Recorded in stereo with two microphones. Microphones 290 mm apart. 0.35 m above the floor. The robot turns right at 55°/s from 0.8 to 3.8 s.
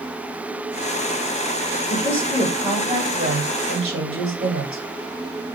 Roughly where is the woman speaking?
Behind.